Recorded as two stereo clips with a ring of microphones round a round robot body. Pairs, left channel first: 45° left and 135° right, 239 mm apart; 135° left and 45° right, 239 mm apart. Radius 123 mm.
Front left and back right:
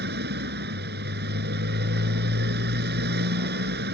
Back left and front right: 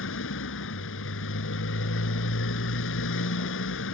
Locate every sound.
0.0 s a motorcycle: 175° left